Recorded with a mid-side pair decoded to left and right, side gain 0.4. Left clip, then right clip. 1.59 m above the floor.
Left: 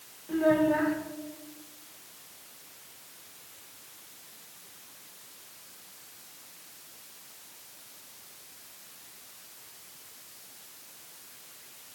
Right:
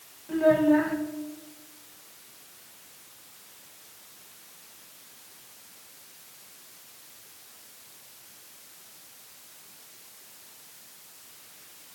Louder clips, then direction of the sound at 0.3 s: Right 3 dB; 15° right.